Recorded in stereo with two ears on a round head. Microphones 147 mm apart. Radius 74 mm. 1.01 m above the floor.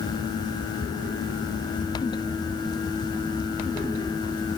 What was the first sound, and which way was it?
Only background noise.